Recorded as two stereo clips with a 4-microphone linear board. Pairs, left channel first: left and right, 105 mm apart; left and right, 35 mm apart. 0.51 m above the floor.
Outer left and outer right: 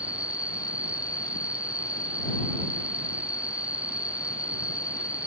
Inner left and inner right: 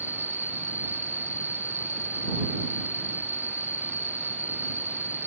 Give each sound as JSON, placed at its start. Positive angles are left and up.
{"t": 0.0, "sound": "an insect", "side_deg": -70}